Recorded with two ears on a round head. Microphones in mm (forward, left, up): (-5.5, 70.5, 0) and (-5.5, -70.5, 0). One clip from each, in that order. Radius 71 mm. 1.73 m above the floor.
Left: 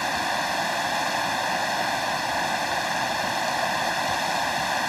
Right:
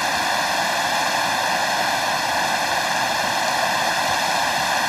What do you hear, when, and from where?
0.0 s running water: 20° right (ahead or behind)